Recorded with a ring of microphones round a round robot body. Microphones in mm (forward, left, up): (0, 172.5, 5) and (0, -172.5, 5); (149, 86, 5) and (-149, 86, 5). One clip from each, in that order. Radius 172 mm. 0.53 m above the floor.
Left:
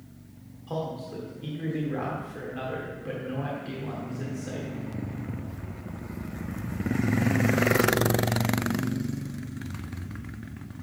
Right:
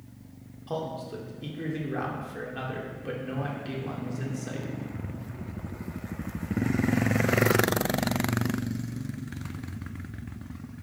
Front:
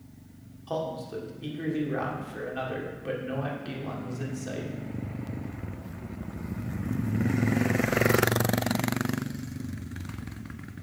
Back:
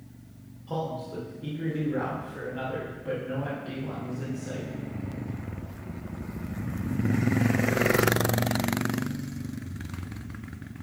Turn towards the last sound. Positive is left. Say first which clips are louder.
# even, front 1 dB
turn(degrees=-20)